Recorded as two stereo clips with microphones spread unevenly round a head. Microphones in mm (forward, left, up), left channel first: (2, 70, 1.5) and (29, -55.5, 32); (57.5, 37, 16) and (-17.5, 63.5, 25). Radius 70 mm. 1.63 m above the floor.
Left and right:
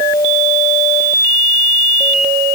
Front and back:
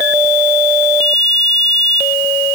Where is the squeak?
No squeak in this recording.